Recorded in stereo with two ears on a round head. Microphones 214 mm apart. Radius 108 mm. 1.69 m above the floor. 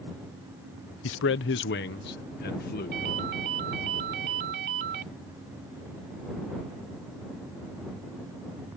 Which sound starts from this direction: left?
A man speaking, at 1.0 s.